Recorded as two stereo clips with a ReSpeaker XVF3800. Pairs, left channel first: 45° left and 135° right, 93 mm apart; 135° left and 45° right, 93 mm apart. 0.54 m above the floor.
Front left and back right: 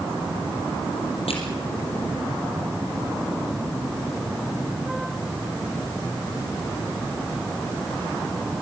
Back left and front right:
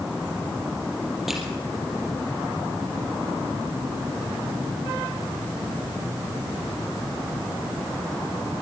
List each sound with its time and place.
1.3 s crushing: 40° left, 4.5 m